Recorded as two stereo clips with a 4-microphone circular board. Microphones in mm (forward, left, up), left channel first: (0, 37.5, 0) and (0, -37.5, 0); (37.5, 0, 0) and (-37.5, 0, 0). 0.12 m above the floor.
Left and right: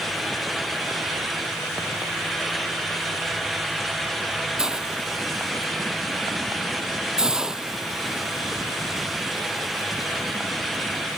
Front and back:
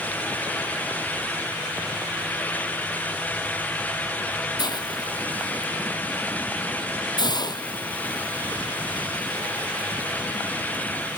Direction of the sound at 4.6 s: 10° right.